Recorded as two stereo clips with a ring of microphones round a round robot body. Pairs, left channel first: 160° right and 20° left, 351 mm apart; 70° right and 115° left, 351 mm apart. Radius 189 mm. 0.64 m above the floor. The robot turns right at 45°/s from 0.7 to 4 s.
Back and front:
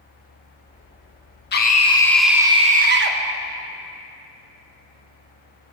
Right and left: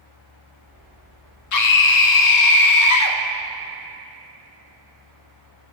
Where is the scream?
100° right, 1.2 m; by 3.2 s 25° right, 1.2 m.